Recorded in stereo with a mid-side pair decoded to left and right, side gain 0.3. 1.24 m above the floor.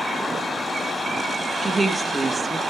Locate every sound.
1.6 s a woman speaking: 40° right, 1.6 m